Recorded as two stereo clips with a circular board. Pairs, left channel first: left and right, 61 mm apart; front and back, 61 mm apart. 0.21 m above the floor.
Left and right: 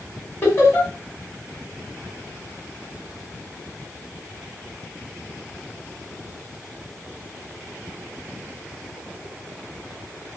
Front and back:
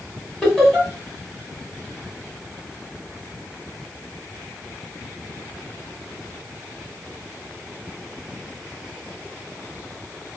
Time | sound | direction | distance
0.4 | laughter | 75° left | 1.8 m